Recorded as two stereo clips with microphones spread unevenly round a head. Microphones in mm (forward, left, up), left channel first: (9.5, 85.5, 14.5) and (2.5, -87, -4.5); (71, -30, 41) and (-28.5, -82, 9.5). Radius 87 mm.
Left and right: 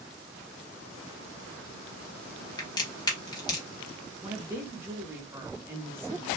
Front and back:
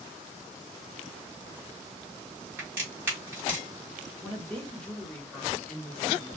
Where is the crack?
115° left, 0.8 m.